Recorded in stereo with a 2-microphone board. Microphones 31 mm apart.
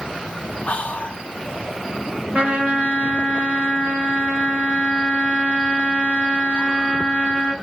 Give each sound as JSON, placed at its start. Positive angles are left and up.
{"t": 0.7, "sound": "whispering", "side_deg": 35, "distance_m": 0.5}
{"t": 2.3, "sound": "a trumpet", "side_deg": -50, "distance_m": 2.5}